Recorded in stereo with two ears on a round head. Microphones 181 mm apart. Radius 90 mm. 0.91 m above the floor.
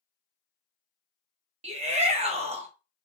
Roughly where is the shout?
Right.